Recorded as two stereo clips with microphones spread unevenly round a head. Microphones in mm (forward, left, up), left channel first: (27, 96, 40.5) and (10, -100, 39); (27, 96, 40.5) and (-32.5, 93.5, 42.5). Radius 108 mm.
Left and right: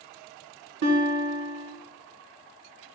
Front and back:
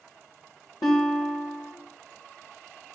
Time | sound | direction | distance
0.8 | a guitar | 70° right | 1.3 m